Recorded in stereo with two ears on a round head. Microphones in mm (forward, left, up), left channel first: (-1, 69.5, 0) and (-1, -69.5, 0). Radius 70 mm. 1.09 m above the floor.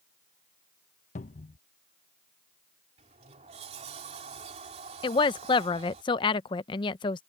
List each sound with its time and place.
1.1 s a cupboard door: 50° left (ahead or behind)
3.0 s a sliding door: 45° right (ahead or behind)
5.0 s a woman speaking: 30° left (ahead or behind)